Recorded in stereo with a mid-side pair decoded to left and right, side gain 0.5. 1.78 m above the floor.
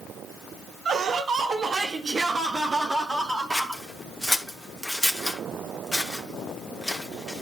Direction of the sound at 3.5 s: Straight ahead.